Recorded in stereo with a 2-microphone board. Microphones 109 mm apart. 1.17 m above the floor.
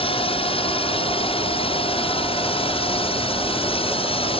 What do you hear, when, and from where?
0.0 s a drone: 60° left (ahead or behind)